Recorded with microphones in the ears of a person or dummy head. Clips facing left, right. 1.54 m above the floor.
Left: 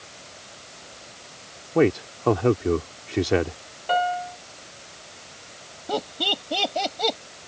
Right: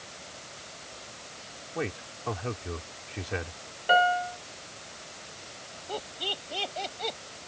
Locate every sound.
1.8 s a man speaking: 85° left
3.9 s a piano: 10° right (ahead or behind)
5.9 s laughter: 75° left (ahead or behind)